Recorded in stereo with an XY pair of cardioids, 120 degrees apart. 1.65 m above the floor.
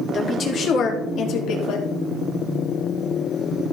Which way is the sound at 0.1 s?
40° left.